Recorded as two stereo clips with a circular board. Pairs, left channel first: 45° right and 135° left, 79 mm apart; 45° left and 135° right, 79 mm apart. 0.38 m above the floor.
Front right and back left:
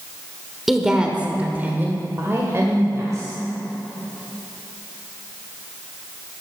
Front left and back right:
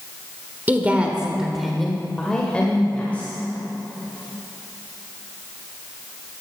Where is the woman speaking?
145° right, 1.2 m; by 3.4 s 105° left, 1.9 m.